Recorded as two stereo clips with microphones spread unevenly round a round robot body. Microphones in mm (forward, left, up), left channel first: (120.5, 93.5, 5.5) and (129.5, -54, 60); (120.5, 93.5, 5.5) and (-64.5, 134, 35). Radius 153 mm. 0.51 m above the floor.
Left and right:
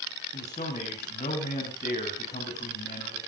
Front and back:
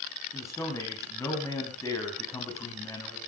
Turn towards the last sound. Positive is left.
turn(degrees=60)